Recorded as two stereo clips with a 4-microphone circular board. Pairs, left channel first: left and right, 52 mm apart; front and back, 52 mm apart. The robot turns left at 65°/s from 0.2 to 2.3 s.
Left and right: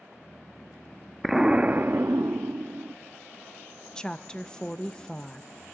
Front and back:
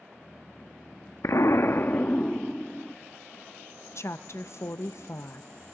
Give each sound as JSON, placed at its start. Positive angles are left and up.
{"t": 1.2, "sound": "an explosion", "azimuth_deg": 0, "distance_m": 0.6}
{"t": 4.0, "sound": "a woman speaking", "azimuth_deg": 15, "distance_m": 0.7}